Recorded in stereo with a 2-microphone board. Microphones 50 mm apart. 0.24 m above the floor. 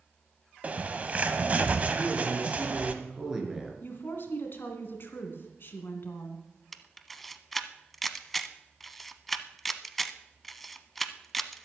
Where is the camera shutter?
5° left (ahead or behind), 0.7 m.